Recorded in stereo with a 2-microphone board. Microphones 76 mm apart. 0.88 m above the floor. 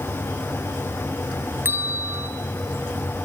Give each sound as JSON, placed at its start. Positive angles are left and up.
{"t": 1.6, "sound": "a bell", "side_deg": -30, "distance_m": 1.3}